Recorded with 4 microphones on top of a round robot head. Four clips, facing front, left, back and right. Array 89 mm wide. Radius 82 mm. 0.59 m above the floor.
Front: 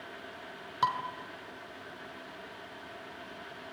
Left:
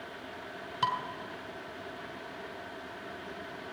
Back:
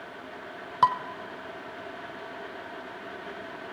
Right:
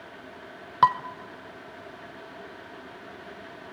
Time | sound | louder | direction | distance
0.8 | dishes clattering | right 11 dB, back 7 dB | 115° right | 1.6 m